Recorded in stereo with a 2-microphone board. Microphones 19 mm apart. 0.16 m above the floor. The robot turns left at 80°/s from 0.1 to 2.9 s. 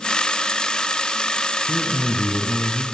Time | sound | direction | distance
1.7 | a man speaking | 125° left | 3.5 m